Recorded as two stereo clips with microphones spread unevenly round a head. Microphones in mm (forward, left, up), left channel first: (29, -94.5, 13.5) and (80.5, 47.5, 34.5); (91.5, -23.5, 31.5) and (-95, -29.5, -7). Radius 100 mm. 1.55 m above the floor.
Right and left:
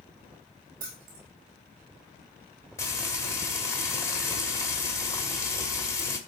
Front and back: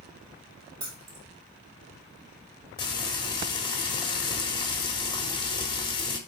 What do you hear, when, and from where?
0.8 s keys jangling: 115° left, 2.5 m
2.8 s frying: 40° right, 1.4 m